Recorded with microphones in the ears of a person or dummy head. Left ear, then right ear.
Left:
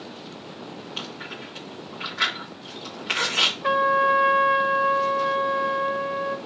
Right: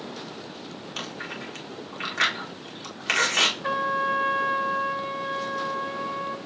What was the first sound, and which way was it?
Chewing, 65° right (ahead or behind).